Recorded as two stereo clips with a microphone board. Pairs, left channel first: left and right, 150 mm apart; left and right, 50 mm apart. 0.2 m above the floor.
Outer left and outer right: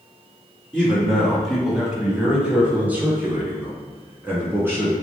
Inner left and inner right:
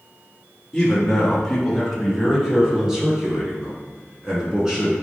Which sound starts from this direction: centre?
A man speaking, at 0.7 s.